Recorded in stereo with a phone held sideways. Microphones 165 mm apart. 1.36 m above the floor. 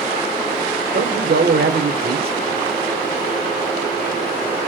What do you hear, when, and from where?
0.9 s a man speaking: 70° right (ahead or behind), 0.7 m